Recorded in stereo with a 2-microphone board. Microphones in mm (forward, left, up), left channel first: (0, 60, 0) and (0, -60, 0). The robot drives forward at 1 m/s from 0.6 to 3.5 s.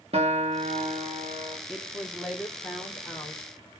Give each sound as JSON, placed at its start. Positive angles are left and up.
{"t": 0.1, "sound": "a guitar", "side_deg": -55, "distance_m": 1.9}
{"t": 1.7, "sound": "a woman speaking", "side_deg": -10, "distance_m": 1.0}